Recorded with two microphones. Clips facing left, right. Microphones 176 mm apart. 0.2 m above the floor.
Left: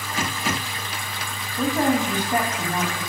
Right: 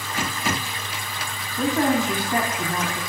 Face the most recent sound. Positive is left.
turn(degrees=20)  # may be behind; listen again after turning